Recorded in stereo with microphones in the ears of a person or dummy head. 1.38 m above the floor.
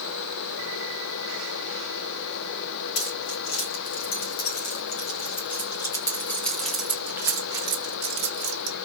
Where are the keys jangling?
55° left (ahead or behind), 2.5 m; by 8.8 s 40° right (ahead or behind), 1.7 m.